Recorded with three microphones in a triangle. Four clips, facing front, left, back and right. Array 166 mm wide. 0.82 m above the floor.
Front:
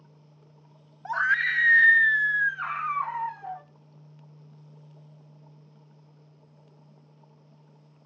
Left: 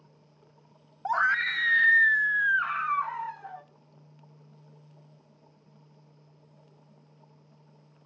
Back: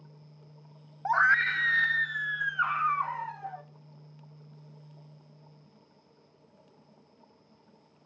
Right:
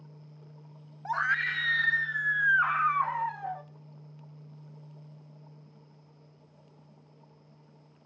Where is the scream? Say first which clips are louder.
Left 4 dB, back 2 dB; 140° left, 0.8 m; by 3.6 s 85° right, 1.5 m.